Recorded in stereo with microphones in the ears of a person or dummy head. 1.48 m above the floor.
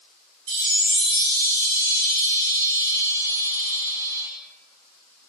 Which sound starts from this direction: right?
A chime, at 0.5 s.